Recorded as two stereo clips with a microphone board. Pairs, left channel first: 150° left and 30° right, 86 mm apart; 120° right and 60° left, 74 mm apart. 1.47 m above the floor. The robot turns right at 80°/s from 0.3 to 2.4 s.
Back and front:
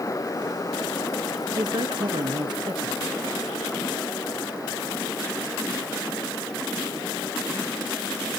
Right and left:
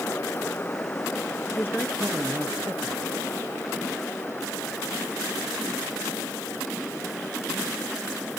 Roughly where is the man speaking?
Right.